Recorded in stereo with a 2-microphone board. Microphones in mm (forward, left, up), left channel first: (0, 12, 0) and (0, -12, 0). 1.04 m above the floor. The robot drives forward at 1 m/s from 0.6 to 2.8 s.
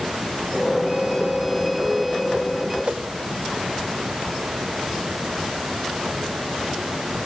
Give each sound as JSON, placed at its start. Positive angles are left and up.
{"t": 2.8, "sound": "a whoosh", "side_deg": -65, "distance_m": 1.8}